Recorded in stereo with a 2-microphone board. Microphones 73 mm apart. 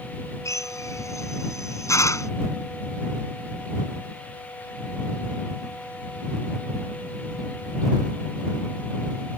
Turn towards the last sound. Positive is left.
turn(degrees=45)  # may be behind; listen again after turning